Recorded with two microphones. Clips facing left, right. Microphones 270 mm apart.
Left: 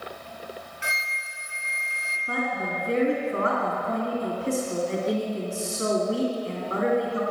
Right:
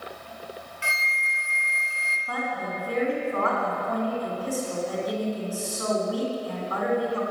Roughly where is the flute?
Centre.